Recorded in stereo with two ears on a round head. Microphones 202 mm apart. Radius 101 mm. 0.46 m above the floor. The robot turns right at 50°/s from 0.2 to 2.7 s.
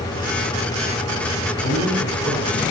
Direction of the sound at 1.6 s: 130° left.